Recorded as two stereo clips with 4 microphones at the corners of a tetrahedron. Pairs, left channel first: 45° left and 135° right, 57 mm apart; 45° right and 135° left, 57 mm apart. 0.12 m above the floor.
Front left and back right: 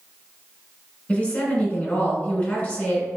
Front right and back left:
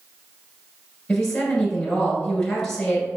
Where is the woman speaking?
30° left, 1.7 m.